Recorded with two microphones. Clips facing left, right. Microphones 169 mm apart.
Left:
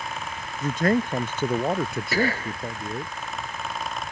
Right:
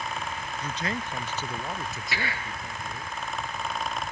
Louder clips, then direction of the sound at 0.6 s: Left 12 dB; 50° left (ahead or behind).